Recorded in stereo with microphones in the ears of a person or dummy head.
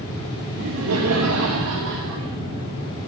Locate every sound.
0.6 s laughter: 60° right (ahead or behind), 1.4 m; by 2.4 s 55° right (ahead or behind), 1.5 m